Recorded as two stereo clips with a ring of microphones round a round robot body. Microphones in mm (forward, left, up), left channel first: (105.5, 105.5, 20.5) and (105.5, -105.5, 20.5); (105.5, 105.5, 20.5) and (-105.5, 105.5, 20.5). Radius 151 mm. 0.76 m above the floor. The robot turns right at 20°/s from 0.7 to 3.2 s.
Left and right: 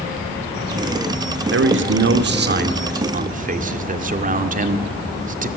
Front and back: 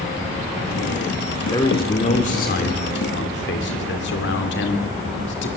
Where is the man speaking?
75° right, 2 m; by 5.5 s 45° right, 2 m.